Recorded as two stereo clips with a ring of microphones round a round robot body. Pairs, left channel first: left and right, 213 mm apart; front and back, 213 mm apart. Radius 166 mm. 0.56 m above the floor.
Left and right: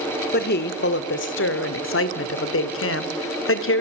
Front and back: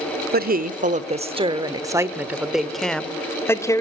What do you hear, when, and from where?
0.3 s a woman speaking: 140° left, 1.6 m; by 3.8 s 75° left, 2 m